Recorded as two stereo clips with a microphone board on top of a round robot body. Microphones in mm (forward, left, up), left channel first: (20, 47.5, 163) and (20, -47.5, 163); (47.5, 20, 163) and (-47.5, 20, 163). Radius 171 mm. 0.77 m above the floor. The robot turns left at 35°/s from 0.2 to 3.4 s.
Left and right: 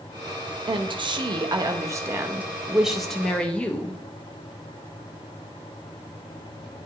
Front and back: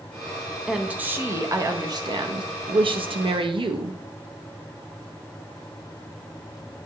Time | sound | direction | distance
0.7 | a woman speaking | 100° right | 0.7 m